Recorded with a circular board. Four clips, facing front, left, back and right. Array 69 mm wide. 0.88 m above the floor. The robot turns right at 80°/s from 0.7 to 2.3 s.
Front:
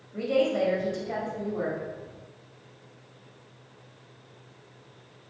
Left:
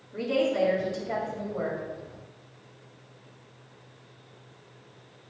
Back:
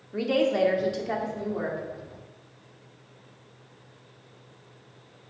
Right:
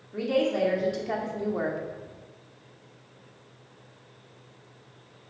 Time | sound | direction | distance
0.1 | a woman speaking | 175° right | 2 m